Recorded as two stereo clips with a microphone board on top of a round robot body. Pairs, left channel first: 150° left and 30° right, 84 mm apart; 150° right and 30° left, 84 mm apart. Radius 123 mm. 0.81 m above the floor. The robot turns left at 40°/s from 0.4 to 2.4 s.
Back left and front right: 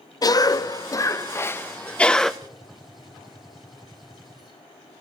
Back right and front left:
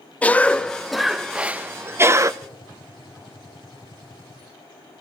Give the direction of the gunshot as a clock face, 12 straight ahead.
4 o'clock.